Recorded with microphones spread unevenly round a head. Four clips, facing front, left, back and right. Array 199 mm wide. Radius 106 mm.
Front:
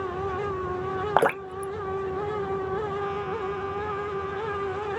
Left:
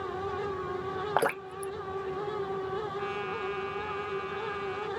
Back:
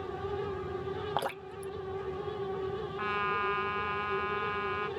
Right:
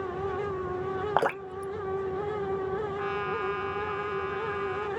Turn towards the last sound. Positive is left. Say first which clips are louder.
# right 3 dB, front 3 dB
turn(degrees=-175)